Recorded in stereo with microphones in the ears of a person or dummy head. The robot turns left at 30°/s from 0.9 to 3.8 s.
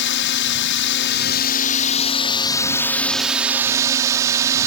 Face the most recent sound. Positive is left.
turn(degrees=-15)